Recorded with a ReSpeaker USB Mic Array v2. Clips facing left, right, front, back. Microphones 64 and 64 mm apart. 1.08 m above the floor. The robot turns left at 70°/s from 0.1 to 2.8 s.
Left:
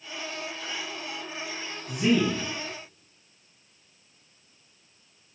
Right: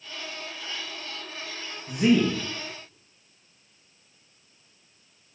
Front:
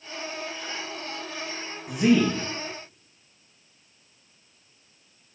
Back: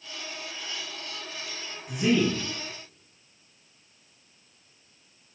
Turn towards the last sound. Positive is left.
turn(degrees=-105)